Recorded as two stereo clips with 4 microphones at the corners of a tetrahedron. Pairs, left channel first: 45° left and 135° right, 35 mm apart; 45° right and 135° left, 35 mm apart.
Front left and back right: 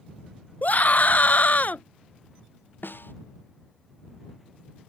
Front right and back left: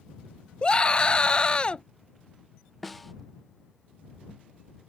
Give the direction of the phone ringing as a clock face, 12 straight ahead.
No phone ringing in this recording.